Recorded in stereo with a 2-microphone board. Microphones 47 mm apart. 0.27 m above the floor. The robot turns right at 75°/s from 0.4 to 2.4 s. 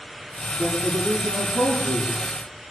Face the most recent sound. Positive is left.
turn(degrees=-40)